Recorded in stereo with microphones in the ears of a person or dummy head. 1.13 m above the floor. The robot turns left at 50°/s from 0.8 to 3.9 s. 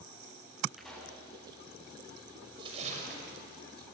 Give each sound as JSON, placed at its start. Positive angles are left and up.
{"t": 0.8, "sound": "a pop", "side_deg": 0, "distance_m": 7.0}
{"t": 2.6, "sound": "a splash", "azimuth_deg": -25, "distance_m": 5.5}